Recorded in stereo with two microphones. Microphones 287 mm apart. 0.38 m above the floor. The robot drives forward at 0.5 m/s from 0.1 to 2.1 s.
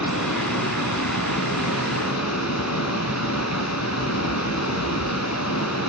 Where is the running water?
75° left (ahead or behind), 2.5 m; by 5.9 s 70° left (ahead or behind), 2.5 m.